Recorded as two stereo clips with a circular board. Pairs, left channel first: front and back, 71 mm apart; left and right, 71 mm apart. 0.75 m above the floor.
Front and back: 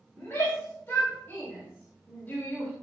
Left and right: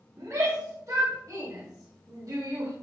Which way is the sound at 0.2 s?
55° right.